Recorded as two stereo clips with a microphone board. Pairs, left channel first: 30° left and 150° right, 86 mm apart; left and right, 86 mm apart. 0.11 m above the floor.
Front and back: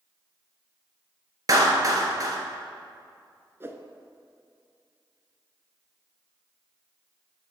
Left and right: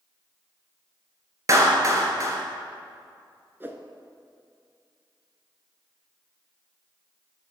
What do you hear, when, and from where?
1.5 s a clap: 125° right, 1.5 m
3.6 s a whoosh: 125° right, 0.7 m